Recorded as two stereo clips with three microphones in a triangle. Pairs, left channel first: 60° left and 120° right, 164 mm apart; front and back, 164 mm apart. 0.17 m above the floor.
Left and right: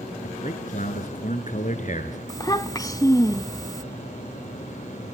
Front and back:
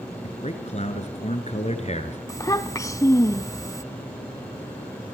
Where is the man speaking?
35° left, 3 m.